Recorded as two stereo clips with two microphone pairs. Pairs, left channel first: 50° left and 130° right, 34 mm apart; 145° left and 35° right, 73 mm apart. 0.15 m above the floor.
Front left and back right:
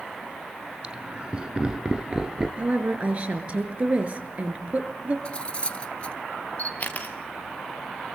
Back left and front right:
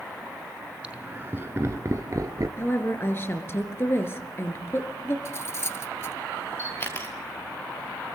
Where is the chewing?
I don't hear chewing.